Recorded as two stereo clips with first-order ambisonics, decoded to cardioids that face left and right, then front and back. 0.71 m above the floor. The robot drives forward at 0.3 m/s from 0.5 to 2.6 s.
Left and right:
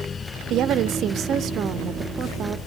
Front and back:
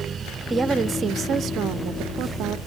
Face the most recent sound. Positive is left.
turn(degrees=-150)